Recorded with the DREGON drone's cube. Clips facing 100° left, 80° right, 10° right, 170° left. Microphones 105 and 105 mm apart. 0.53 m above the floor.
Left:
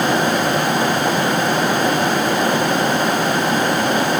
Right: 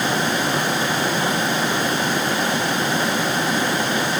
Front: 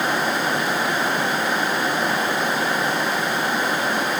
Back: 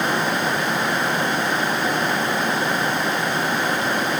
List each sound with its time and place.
Only background noise.